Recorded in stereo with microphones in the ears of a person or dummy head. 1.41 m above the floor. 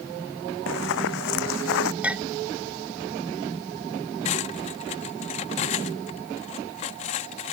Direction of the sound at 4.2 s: 30° left (ahead or behind).